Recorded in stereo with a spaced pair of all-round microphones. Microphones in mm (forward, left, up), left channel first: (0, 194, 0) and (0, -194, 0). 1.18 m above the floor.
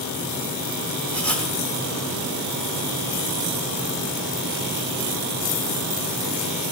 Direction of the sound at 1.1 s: 5° left (ahead or behind).